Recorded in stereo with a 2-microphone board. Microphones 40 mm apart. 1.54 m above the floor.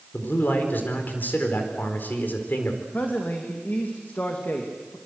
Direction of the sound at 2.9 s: 45° left (ahead or behind).